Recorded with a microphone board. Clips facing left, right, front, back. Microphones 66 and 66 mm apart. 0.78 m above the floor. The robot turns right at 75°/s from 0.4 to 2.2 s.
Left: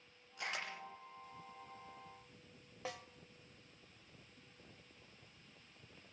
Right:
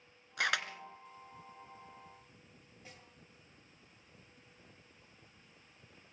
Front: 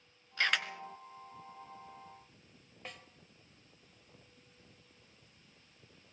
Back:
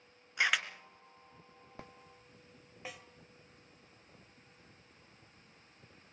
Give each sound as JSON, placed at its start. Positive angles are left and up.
{"t": 0.4, "sound": "a camera shutter", "azimuth_deg": -105, "distance_m": 2.0}
{"t": 2.9, "sound": "a snare drum", "azimuth_deg": 95, "distance_m": 1.5}